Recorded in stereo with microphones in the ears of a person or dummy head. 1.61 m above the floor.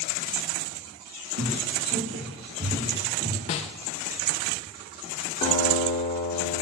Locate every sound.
1.4 s footsteps: 50° right (ahead or behind), 2.5 m; by 3.4 s 20° right (ahead or behind), 3 m
3.5 s a snare drum: 35° left (ahead or behind), 0.8 m
5.4 s a guitar: 30° left (ahead or behind), 1.8 m